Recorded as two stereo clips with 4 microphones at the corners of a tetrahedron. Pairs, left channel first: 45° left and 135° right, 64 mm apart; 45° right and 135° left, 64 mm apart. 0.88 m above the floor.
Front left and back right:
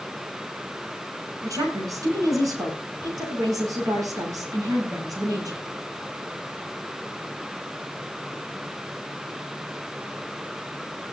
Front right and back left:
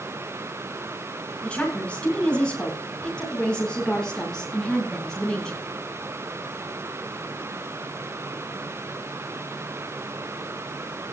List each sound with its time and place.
1.4 s a woman speaking: 115° right, 7 m; by 5.6 s 125° right, 9 m